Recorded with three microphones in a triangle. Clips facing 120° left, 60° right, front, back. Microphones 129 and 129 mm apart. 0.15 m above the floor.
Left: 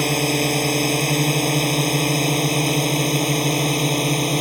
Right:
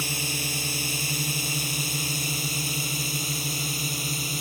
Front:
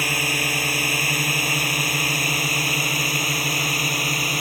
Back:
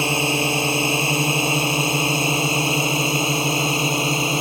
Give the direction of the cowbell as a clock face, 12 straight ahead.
I don't hear a cowbell.